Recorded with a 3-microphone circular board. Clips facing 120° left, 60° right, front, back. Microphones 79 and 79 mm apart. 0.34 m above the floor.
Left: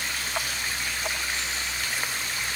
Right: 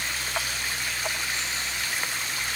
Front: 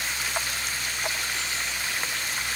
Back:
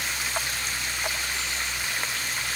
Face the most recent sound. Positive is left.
No sound to turn to.